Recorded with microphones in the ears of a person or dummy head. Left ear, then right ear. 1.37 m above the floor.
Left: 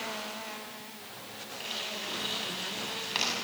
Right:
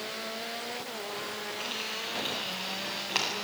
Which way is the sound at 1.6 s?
15° right (ahead or behind).